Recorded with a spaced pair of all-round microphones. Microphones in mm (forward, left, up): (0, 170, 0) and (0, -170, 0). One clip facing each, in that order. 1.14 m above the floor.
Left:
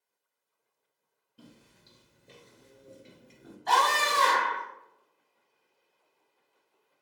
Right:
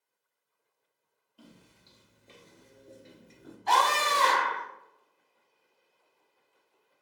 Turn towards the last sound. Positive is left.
turn(degrees=-35)  # may be behind; listen again after turning